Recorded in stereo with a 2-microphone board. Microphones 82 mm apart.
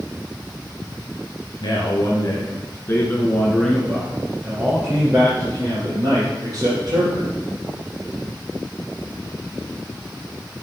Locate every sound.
1.6 s a man speaking: 60° left (ahead or behind), 2.5 m; by 7.3 s 50° right (ahead or behind), 5 m